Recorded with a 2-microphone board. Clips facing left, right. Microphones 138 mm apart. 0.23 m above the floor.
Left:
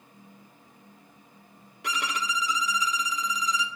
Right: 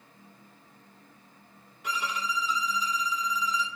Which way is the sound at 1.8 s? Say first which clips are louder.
Left 1 dB; 80° left.